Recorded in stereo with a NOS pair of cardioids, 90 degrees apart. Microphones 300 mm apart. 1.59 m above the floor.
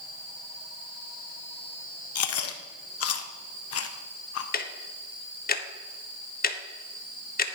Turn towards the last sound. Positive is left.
turn(degrees=30)